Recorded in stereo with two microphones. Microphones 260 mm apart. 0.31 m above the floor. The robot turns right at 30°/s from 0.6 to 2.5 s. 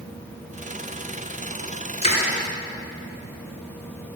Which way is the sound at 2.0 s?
25° left (ahead or behind).